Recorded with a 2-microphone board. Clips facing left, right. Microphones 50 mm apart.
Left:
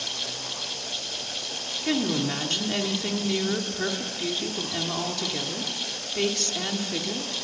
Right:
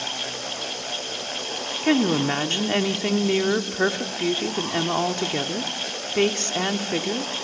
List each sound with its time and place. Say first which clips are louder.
1.8 s a woman speaking: right 6 dB; 35° right (ahead or behind), 1.6 m